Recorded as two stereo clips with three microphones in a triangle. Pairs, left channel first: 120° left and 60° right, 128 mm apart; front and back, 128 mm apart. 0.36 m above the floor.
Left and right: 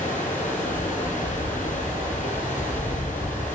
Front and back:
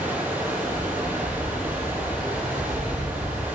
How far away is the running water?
About 6.5 m.